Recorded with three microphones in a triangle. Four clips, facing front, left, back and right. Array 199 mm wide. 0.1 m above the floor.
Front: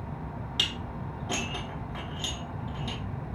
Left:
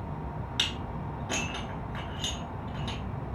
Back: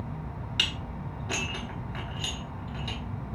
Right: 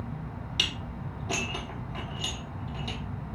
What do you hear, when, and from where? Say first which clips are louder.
0.6 s dishes clattering: right 1 dB, back 2 dB; 45° right, 1.0 m